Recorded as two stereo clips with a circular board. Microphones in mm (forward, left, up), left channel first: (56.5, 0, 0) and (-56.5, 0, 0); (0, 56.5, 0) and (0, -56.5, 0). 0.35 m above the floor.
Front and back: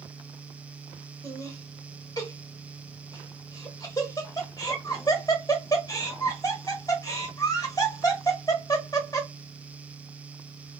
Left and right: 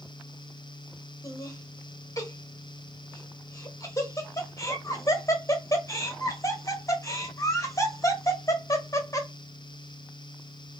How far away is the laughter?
About 1.1 m.